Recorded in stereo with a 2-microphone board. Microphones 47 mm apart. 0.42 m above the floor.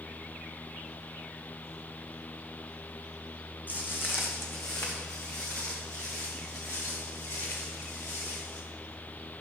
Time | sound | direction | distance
3.7 | footsteps | 40° left (ahead or behind) | 1.4 m